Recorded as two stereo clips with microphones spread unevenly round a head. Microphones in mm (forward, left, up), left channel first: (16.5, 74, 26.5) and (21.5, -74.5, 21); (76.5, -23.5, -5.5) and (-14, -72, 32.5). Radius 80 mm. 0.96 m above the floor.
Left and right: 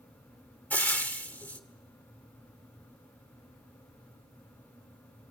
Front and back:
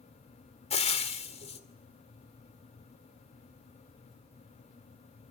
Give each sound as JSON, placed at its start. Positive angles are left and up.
{"t": 0.7, "sound": "frying", "azimuth_deg": 15, "distance_m": 2.0}